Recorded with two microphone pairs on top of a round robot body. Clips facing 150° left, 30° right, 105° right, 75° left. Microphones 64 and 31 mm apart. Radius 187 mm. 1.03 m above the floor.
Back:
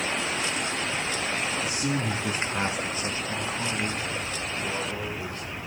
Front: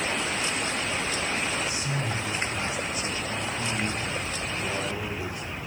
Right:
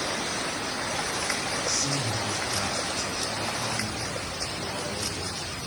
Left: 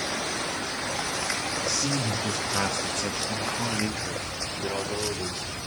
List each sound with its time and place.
1.6 s a man speaking: 135° left, 1.7 m; by 5.5 s 45° left, 3 m